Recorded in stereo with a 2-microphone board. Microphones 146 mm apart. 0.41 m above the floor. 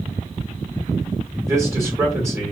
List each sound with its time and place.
1.4 s a man speaking: 20° right (ahead or behind), 1.2 m